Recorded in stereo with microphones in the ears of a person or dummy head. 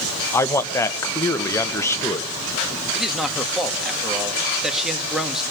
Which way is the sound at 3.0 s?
Centre (ahead or behind).